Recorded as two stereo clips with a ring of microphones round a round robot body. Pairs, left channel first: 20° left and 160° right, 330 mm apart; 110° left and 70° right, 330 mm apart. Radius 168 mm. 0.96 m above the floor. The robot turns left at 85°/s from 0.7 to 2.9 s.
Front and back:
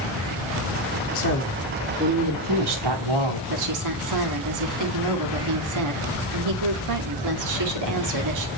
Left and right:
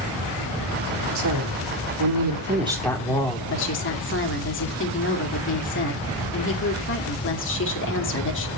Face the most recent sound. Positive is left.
turn(degrees=170)